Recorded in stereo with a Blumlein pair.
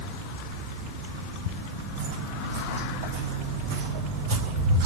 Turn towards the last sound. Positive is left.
turn(degrees=-45)